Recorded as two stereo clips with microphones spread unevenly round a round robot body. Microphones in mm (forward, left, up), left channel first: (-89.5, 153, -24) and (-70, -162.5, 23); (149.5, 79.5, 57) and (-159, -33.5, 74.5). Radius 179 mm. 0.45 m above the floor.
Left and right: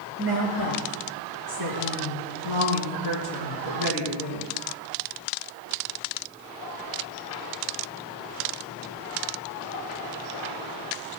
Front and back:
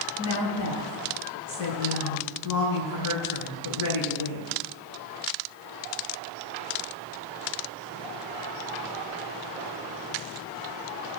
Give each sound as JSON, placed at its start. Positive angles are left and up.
{"t": 0.2, "sound": "a woman speaking", "azimuth_deg": 50, "distance_m": 5.5}